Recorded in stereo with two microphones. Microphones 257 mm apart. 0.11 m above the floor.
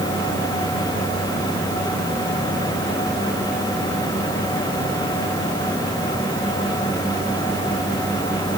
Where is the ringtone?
I don't hear a ringtone.